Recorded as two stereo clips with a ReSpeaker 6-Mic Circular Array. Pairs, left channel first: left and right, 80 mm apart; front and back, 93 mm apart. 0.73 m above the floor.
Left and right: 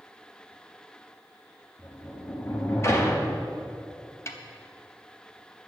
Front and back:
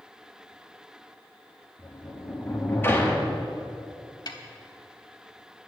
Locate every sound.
1.8 s a sliding door: 55° left, 1.6 m
4.3 s a snare drum: 35° left, 1.1 m